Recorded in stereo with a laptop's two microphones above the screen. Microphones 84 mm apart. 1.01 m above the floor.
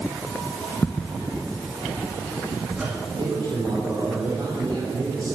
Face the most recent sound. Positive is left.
turn(degrees=-55)  # may be behind; listen again after turning